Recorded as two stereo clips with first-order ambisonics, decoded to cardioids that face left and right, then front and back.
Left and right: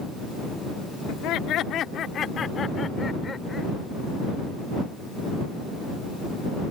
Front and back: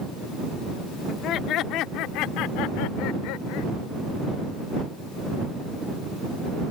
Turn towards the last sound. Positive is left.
turn(degrees=10)